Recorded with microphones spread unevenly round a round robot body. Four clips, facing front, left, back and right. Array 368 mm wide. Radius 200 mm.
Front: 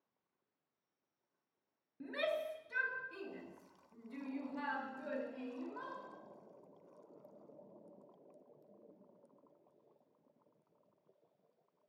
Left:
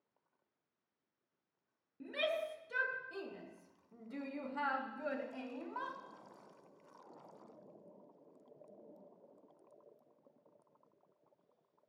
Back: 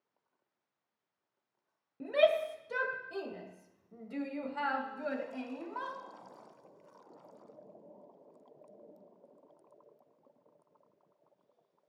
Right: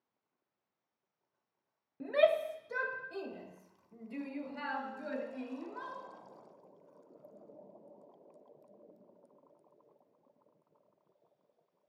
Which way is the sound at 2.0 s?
130° right.